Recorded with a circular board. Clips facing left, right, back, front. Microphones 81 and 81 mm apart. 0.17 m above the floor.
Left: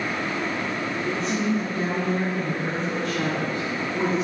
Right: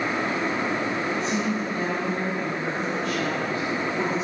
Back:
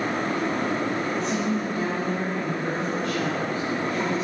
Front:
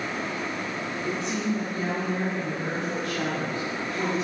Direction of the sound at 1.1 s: 80° left.